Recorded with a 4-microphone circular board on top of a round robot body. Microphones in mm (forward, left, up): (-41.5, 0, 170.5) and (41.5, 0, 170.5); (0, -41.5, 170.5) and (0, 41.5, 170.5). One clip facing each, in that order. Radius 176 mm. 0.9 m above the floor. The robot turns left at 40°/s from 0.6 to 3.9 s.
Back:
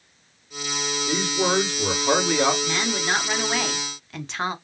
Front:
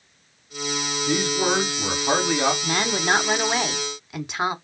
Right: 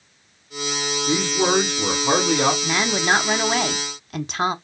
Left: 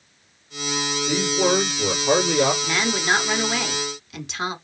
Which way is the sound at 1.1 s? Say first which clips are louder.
Front 1 dB, even; 40° right.